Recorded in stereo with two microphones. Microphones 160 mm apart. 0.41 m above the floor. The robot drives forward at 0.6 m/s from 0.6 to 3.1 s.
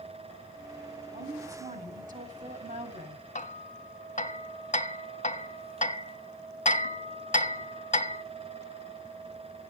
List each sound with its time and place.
1.1 s a woman speaking: 50° right (ahead or behind), 3 m; by 3.2 s 65° right (ahead or behind), 2.5 m
3.4 s hammering: 50° left (ahead or behind), 1.3 m